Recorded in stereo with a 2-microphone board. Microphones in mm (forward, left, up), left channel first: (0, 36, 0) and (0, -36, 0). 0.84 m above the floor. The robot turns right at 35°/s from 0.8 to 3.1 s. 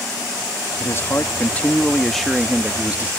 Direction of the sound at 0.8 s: 130° left.